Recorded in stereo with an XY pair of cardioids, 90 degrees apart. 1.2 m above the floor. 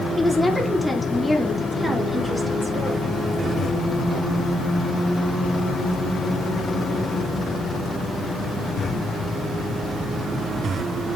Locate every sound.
0.2 s a woman speaking: 20° left, 2.5 m; by 3.2 s 5° right, 3.5 m